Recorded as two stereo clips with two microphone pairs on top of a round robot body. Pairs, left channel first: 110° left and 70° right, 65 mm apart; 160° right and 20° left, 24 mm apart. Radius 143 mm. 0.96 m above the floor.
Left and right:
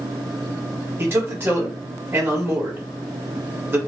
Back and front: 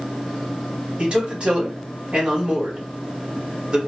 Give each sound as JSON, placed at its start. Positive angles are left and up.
{"t": 1.0, "sound": "a man speaking", "azimuth_deg": -25, "distance_m": 2.5}